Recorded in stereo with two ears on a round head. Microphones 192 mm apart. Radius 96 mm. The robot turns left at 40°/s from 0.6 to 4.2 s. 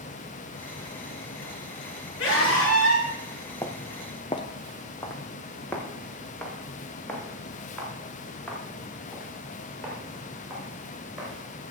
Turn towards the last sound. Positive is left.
turn(degrees=0)  # may be behind; listen again after turning